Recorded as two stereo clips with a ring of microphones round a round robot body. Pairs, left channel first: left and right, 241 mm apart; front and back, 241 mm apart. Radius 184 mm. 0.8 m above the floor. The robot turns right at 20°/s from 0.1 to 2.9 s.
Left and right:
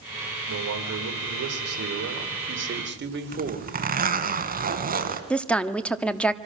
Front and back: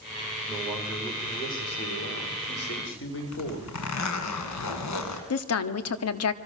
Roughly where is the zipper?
Ahead right.